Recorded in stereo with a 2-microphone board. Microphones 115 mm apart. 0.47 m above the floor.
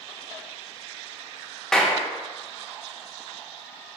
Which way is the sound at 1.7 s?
5° left (ahead or behind).